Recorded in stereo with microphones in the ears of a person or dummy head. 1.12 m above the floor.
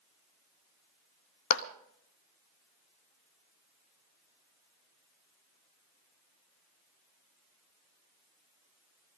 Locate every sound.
1.5 s a clap: 60° left (ahead or behind), 0.8 m